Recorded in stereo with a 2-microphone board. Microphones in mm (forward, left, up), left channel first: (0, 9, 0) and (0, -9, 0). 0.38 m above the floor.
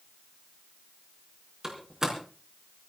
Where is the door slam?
30° right (ahead or behind), 4.5 m.